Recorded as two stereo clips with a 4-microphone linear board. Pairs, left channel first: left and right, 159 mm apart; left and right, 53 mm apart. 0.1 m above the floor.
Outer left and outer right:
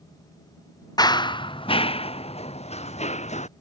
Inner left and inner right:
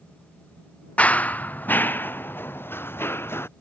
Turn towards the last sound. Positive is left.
turn(degrees=40)  # may be behind; listen again after turning